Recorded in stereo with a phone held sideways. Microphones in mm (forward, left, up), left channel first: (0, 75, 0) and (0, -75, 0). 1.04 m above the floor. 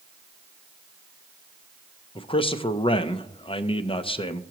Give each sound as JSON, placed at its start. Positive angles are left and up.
{"t": 2.1, "sound": "a man speaking", "side_deg": 35, "distance_m": 0.5}